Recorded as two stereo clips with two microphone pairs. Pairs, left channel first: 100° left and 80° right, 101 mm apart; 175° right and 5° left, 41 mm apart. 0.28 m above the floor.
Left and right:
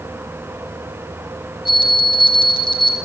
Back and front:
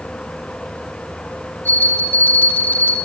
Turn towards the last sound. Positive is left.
turn(degrees=145)